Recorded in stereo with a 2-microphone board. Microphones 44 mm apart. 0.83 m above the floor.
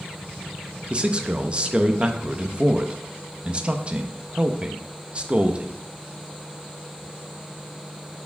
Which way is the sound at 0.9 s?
25° right (ahead or behind).